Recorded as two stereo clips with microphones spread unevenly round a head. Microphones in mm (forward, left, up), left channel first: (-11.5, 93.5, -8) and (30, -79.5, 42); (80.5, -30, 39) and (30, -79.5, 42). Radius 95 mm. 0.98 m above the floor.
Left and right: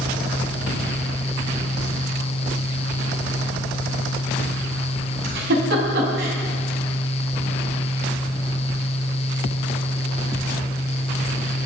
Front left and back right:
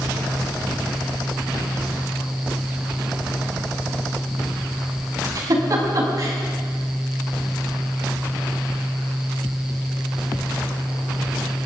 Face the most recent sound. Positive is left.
turn(degrees=-105)